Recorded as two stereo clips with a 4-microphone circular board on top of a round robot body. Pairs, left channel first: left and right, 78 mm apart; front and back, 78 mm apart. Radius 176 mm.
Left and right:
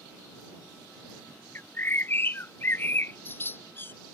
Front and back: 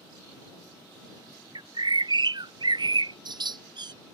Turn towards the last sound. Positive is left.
turn(degrees=155)